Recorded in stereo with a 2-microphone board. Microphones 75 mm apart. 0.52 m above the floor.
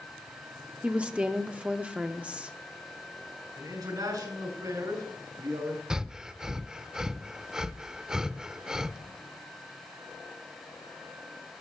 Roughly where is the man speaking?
Right.